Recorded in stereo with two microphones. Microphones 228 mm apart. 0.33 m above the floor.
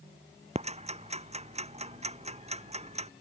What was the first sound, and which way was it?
Ticking, 30° right (ahead or behind).